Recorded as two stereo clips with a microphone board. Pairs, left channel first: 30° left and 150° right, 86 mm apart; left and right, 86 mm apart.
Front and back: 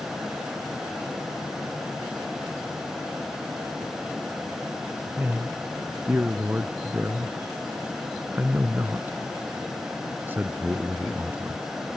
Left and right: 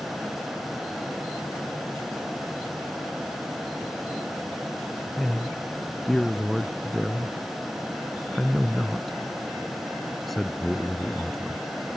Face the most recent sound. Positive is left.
turn(degrees=175)